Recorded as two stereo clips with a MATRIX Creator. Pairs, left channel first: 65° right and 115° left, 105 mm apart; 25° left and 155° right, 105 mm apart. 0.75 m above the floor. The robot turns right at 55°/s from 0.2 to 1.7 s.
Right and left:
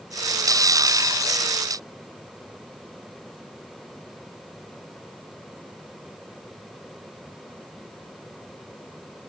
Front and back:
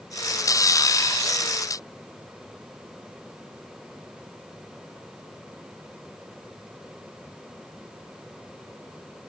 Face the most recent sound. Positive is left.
No sound to turn to.